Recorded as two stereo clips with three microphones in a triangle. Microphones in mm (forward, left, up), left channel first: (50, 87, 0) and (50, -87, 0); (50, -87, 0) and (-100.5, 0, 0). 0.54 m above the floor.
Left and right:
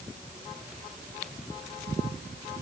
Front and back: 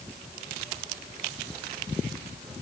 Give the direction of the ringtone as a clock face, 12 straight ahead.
No ringtone in this recording.